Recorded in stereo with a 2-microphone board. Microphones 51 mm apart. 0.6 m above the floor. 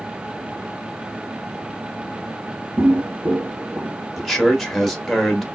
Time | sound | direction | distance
2.8 | footsteps | 40° right (ahead or behind) | 0.6 m
4.2 | a man speaking | centre (ahead or behind) | 1.6 m